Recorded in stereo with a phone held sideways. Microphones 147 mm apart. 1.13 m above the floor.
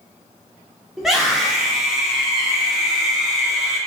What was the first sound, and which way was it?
A scream, centre (ahead or behind).